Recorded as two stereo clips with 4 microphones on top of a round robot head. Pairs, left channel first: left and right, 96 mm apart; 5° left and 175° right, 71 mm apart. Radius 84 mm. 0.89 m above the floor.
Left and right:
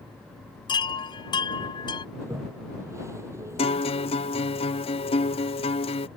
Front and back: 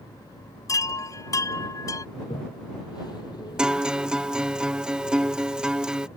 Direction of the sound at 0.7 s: 50° left.